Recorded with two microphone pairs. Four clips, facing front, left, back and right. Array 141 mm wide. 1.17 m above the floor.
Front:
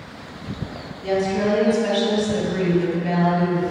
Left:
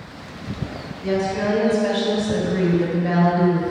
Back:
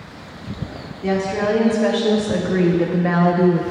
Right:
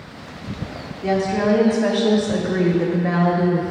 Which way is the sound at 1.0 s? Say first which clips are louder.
Right 2 dB, back 1 dB; 130° right.